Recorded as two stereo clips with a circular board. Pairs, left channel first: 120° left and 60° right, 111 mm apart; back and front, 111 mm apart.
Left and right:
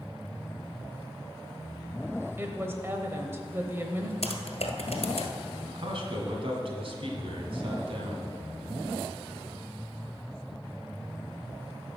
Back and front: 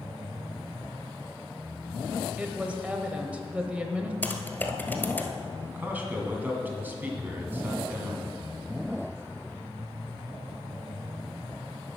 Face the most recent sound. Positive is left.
turn(degrees=-70)